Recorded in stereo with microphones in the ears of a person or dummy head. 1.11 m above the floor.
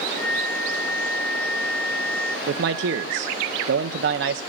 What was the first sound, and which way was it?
A flute, 5° left (ahead or behind).